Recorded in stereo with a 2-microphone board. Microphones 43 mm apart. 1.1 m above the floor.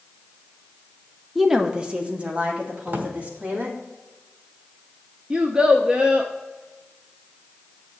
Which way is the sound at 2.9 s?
60° right (ahead or behind).